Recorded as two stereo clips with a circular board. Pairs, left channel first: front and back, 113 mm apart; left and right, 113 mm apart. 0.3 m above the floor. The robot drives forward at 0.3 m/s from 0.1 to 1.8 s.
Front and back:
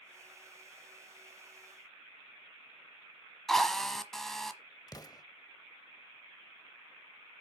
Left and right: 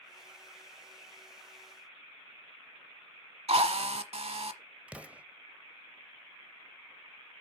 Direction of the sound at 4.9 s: 20° right.